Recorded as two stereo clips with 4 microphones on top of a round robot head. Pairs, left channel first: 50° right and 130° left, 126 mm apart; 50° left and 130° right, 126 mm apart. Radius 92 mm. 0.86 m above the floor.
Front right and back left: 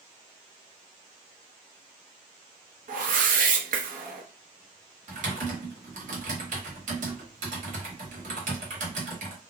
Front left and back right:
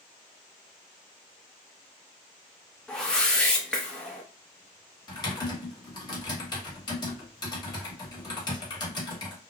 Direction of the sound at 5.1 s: 110° left.